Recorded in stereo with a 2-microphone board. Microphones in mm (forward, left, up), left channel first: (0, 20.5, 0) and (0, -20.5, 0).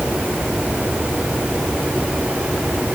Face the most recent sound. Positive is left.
No sound to turn to.